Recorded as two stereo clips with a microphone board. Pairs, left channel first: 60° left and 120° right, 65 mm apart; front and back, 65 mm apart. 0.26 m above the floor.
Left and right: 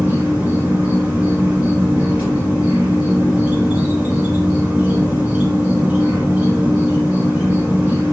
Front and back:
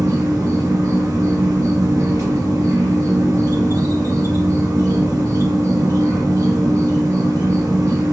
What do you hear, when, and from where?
0.0 s an insect: 175° left, 1.0 m